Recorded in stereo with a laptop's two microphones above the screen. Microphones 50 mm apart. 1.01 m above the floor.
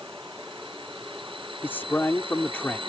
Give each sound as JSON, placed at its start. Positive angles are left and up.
{"t": 1.6, "sound": "a man speaking", "side_deg": 40}